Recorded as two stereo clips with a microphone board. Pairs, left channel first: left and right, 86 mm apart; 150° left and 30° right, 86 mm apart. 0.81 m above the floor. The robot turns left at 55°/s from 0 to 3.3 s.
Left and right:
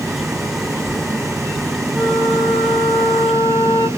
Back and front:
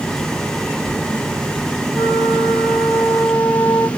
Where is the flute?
170° right, 3 m; by 3.9 s 115° left, 3 m.